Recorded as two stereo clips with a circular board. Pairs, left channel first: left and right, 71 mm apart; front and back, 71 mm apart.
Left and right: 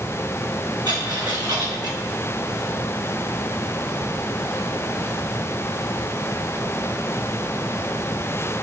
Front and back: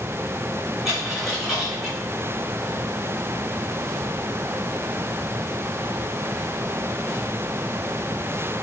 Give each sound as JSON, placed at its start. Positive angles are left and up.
{"t": 0.8, "sound": "a dropped coin", "azimuth_deg": -90, "distance_m": 5.0}